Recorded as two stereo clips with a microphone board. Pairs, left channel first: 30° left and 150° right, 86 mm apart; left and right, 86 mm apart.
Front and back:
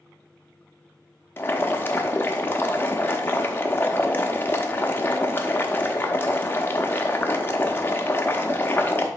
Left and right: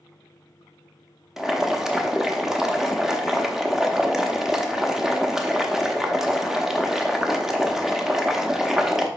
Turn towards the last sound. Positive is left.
turn(degrees=-10)